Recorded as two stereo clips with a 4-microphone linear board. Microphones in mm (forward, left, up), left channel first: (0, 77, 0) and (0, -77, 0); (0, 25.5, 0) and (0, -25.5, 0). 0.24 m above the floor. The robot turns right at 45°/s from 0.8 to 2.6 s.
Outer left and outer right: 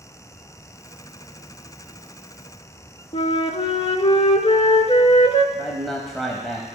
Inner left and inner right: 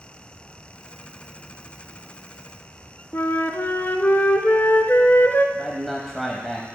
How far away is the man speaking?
About 1.0 m.